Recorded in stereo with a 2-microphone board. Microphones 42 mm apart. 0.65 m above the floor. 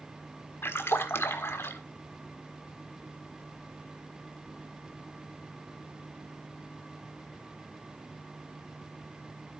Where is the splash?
65° left (ahead or behind), 1.4 m.